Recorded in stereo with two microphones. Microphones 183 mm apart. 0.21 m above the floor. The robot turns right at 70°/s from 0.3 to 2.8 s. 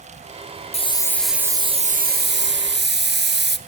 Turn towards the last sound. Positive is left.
turn(degrees=-70)